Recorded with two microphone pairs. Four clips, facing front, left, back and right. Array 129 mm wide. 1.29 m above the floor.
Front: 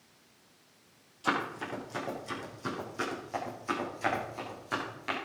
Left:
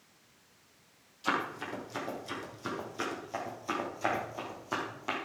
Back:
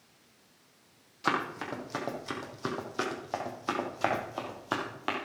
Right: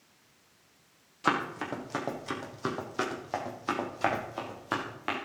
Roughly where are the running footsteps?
Right.